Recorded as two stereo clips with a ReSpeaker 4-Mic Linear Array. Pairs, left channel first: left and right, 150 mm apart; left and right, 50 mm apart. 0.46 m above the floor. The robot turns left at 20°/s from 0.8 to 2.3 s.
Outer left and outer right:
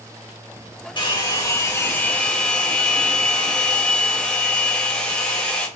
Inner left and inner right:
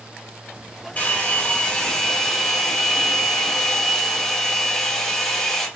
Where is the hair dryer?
30° left (ahead or behind), 2.0 m; by 5.7 s 10° left (ahead or behind), 2.0 m.